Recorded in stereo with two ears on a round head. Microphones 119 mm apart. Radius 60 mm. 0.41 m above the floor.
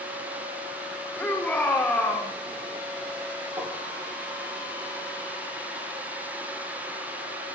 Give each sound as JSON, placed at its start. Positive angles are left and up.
{"t": 1.2, "sound": "a shout", "side_deg": 10, "distance_m": 5.0}
{"t": 3.6, "sound": "tapping", "side_deg": -20, "distance_m": 7.0}